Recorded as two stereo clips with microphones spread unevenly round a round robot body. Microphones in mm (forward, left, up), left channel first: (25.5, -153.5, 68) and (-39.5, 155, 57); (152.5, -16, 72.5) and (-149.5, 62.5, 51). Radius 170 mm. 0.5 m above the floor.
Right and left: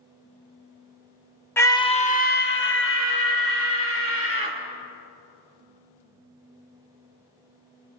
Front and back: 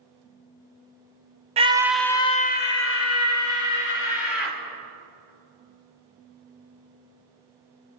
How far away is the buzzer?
No buzzer in this recording.